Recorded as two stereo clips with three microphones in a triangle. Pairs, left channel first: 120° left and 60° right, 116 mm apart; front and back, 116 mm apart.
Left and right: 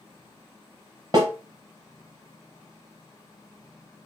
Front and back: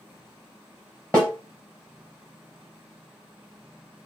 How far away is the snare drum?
About 1.5 m.